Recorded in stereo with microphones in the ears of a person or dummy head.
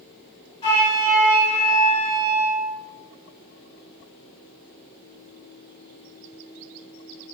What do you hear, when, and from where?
0.6 s a flute: 30° left (ahead or behind), 3.5 m